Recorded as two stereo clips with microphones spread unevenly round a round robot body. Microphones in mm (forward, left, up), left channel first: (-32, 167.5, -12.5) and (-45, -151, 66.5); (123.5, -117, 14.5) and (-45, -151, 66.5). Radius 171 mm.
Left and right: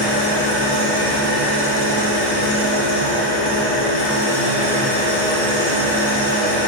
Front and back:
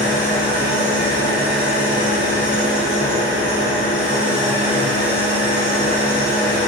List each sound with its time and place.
0.0 s an engine running: 65° left, 4 m